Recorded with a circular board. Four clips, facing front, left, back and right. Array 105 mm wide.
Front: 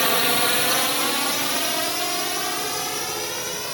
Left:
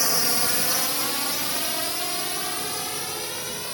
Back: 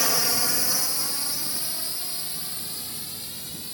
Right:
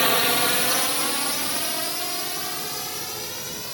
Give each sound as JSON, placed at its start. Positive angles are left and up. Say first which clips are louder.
{"t": 0.0, "sound": "a drone", "louder": "right 6 dB, front 7 dB", "azimuth_deg": -50}